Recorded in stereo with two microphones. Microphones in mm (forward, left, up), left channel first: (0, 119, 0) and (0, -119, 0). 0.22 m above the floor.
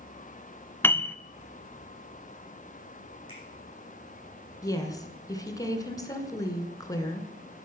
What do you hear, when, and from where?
0.8 s a piano: 10° left (ahead or behind), 0.7 m
3.3 s a finger snap: 60° right (ahead or behind), 7 m
4.6 s a woman speaking: 15° left (ahead or behind), 2 m